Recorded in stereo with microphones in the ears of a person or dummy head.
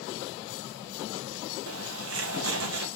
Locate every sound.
1.7 s a bird: 70° right (ahead or behind), 2 m